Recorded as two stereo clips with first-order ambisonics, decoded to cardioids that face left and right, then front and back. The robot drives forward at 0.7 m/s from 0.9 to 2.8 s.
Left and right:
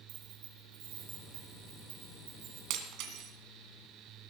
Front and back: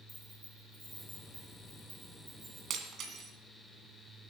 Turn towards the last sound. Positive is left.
turn(degrees=-125)